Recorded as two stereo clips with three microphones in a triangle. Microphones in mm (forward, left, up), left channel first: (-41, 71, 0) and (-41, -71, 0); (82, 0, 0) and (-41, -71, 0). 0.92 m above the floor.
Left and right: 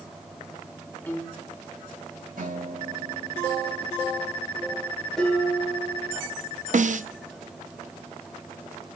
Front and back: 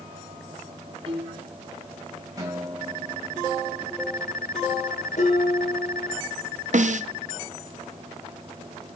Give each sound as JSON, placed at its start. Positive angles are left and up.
{"t": 1.1, "sound": "a piano", "azimuth_deg": 165, "distance_m": 1.6}
{"t": 2.4, "sound": "a guitar", "azimuth_deg": -85, "distance_m": 7.0}
{"t": 5.2, "sound": "dishes clattering", "azimuth_deg": 5, "distance_m": 10.0}
{"t": 6.7, "sound": "a snare drum", "azimuth_deg": -120, "distance_m": 0.6}